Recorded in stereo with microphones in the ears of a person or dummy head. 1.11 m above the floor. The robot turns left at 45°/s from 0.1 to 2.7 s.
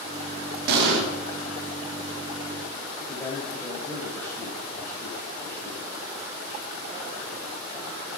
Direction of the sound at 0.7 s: 60° right (ahead or behind).